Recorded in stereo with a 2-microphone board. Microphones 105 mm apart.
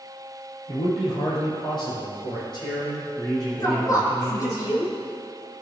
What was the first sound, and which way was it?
A man speaking, 60° left (ahead or behind).